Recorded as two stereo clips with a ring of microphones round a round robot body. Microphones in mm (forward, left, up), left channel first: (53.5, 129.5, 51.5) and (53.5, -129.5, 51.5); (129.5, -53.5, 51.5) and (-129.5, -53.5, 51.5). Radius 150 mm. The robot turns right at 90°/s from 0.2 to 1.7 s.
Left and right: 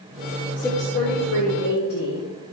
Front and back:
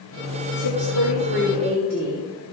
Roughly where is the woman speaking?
Ahead.